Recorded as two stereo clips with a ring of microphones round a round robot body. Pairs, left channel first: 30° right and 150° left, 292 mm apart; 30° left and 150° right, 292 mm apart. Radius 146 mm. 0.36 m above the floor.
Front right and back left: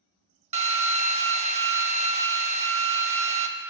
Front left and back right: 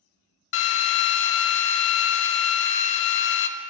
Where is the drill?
80° left, 0.6 m.